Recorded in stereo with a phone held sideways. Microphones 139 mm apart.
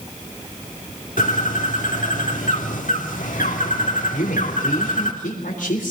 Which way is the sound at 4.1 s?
70° left (ahead or behind).